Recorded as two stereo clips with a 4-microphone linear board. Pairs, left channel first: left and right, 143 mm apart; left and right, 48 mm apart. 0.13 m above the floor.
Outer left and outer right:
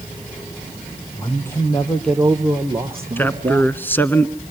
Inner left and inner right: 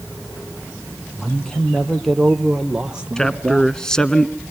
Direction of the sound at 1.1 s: 20° left (ahead or behind).